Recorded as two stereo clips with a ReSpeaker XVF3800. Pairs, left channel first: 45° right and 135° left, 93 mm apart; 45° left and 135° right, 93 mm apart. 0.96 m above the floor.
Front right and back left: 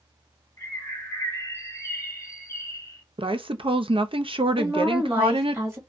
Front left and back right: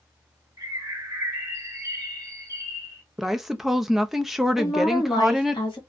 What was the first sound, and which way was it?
A bird, 95° right.